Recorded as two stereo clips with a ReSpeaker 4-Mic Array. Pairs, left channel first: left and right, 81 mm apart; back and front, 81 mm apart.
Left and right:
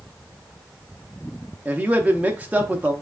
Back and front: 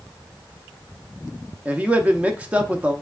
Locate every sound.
1.6 s a man speaking: 45° right, 0.7 m